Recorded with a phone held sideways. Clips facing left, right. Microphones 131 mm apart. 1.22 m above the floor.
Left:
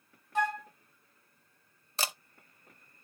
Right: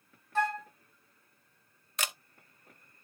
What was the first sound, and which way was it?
A flute, 15° left (ahead or behind).